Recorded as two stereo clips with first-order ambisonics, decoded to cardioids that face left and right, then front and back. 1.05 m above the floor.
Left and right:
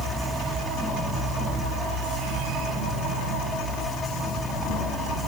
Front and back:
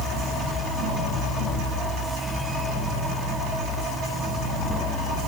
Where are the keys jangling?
I don't hear keys jangling.